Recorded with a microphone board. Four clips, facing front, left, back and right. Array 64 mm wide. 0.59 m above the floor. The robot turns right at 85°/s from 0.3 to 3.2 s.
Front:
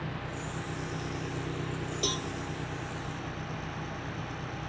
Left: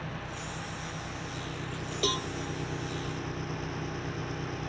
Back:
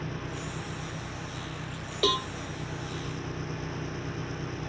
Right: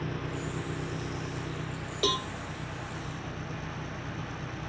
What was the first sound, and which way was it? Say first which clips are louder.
An engine running: right 4 dB, back 1 dB; 110° right.